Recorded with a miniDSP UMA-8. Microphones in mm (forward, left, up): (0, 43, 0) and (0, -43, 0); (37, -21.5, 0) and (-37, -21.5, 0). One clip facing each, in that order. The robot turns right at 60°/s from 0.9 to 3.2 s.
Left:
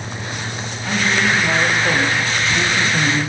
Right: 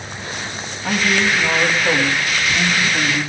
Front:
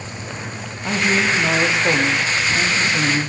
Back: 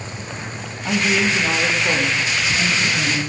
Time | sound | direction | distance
0.8 | a man speaking | 45° right | 6 m